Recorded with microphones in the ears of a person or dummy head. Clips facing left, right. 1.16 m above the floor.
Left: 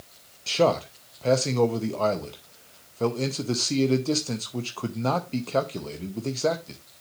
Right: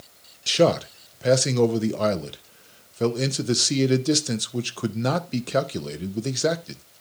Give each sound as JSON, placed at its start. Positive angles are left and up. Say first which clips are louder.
{"t": 0.5, "sound": "a man speaking", "louder": "right 3 dB", "side_deg": -15, "distance_m": 0.5}